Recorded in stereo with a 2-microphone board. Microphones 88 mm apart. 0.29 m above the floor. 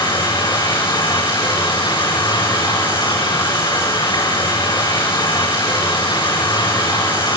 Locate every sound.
0.0 s running water: 55° left (ahead or behind), 6 m